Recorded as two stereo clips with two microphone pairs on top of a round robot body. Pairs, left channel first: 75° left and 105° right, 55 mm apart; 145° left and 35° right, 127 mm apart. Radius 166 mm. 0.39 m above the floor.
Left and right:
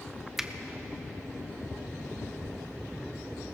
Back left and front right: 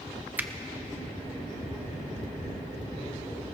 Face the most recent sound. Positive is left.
turn(degrees=0)